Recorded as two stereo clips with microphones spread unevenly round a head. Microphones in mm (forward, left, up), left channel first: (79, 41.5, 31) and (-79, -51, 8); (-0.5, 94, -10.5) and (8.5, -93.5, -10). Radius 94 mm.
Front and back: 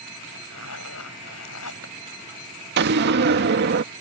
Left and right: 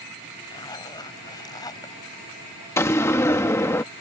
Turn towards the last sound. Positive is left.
turn(degrees=170)